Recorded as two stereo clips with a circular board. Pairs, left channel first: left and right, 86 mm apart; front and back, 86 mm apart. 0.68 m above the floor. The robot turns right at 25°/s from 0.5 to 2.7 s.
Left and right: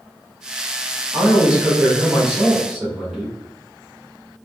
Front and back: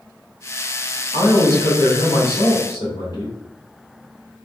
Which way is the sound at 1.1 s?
35° right.